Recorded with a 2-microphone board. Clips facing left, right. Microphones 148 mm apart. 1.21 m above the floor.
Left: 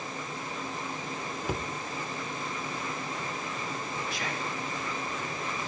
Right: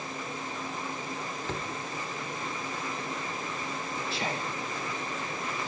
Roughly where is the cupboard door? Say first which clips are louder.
Left 4 dB; centre.